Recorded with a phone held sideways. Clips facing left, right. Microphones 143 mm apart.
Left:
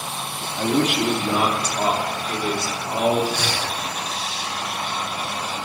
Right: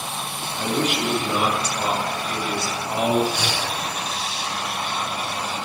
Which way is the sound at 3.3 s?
15° right (ahead or behind).